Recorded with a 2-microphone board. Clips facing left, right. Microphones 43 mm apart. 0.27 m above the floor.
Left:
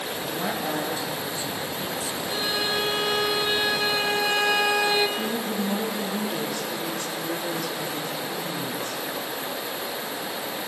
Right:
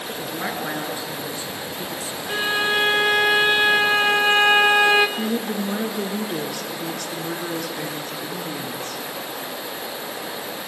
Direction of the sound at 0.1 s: 50° right (ahead or behind).